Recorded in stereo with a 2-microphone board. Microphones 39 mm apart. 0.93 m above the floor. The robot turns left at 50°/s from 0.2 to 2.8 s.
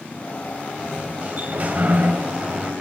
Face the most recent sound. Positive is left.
turn(degrees=-135)